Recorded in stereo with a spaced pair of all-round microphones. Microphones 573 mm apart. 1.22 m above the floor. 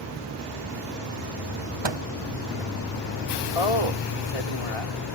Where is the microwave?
50° right (ahead or behind).